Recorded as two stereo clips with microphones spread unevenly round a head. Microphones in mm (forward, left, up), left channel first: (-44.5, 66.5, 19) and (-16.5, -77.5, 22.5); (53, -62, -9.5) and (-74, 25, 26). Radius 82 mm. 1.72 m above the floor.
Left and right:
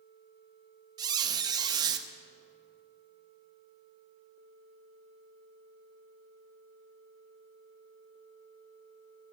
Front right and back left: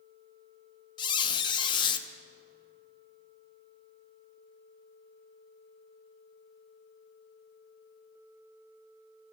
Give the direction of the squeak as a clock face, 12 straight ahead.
3 o'clock.